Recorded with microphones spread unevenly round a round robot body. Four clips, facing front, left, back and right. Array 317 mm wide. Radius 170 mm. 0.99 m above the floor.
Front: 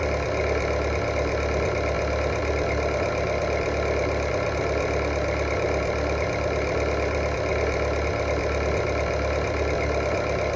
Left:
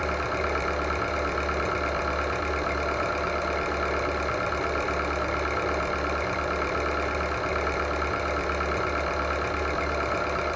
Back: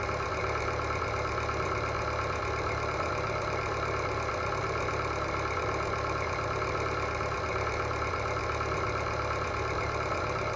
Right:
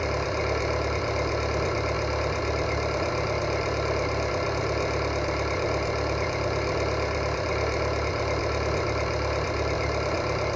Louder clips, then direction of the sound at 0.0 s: Even, front 7 dB; 20° right.